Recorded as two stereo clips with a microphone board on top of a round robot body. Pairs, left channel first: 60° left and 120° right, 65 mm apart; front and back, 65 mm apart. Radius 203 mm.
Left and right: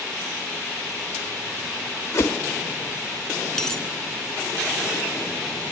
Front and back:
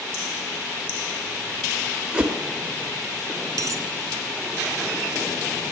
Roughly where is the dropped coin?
Behind left.